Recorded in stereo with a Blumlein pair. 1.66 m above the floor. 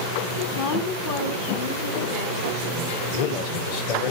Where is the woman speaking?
50° left, 1.0 m; by 3.0 s 65° left, 2 m.